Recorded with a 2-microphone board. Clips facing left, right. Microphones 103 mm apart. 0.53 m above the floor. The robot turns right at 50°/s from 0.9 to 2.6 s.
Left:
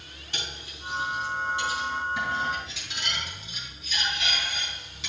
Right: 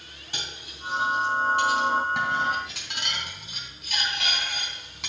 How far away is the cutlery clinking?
About 2.5 m.